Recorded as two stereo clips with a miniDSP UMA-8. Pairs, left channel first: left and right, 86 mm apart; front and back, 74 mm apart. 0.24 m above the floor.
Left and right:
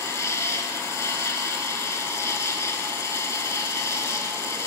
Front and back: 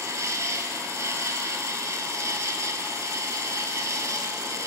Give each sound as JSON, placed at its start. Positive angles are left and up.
{"t": 0.0, "sound": "an insect", "azimuth_deg": 140, "distance_m": 1.0}